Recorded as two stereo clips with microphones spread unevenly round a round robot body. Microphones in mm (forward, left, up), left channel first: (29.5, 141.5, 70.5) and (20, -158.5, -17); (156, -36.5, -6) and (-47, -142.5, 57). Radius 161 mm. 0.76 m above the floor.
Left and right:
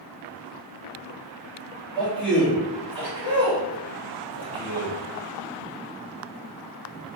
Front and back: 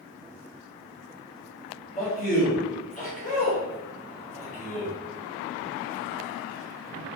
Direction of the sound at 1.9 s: 5° right.